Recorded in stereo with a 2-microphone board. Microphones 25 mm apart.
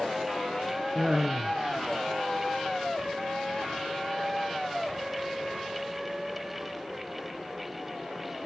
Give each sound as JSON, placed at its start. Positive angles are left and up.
{"t": 0.9, "sound": "laughter", "side_deg": -25, "distance_m": 1.7}